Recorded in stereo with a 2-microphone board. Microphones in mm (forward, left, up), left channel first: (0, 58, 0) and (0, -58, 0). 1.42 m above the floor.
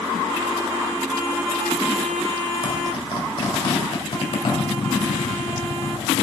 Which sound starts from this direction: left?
A zipper, at 2.6 s.